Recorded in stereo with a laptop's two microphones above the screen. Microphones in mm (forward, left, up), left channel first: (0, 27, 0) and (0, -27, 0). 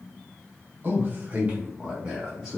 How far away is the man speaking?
About 1.1 m.